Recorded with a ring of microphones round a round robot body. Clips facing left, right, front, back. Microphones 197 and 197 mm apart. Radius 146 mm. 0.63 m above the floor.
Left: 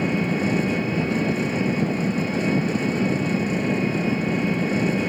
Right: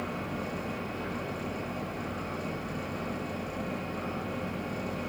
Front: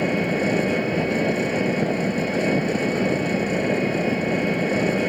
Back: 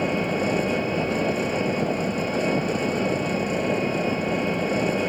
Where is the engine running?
75° left.